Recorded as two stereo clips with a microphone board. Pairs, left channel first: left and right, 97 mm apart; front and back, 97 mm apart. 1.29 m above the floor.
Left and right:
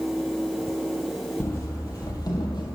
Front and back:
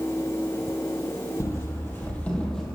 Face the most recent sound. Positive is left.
turn(degrees=85)